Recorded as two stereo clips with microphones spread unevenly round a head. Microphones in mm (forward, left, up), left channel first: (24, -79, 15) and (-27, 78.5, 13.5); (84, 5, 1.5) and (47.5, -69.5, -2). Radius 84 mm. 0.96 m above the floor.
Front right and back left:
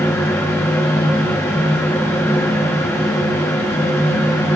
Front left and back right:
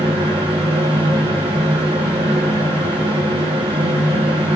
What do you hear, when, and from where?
0.0 s a fan: 145° right, 1.1 m